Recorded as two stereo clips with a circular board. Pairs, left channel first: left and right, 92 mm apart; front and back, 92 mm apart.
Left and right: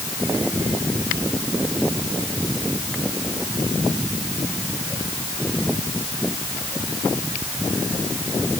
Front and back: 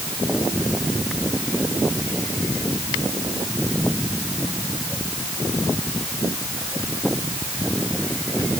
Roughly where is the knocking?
I don't hear knocking.